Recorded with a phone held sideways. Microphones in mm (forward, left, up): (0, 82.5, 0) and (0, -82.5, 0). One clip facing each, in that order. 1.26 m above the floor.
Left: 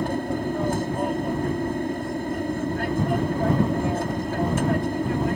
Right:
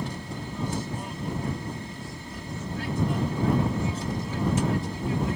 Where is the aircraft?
60° left (ahead or behind).